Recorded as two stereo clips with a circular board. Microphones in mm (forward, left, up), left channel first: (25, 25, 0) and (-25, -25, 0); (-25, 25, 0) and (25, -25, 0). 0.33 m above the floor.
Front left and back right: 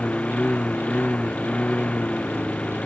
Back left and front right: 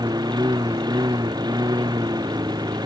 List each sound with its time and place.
0.0 s a lawn mower: 30° right